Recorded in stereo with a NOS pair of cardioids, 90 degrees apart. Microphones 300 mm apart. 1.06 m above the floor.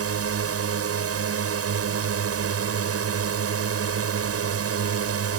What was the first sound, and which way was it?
A drone, 55° right.